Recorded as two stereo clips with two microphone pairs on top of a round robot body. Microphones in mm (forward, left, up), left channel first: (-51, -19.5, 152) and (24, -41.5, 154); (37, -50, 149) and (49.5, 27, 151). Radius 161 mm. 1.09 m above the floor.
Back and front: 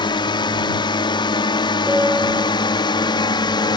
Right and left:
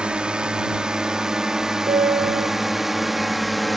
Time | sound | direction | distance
0.0 | a drone | 160° left | ?
1.9 | a piano | 70° left | ?